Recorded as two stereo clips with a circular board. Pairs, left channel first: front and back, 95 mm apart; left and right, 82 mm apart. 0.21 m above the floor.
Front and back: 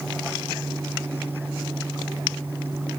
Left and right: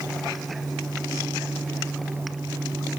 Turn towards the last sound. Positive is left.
No sound to turn to.